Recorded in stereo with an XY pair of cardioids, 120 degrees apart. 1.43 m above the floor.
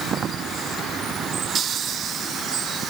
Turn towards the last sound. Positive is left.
No sound to turn to.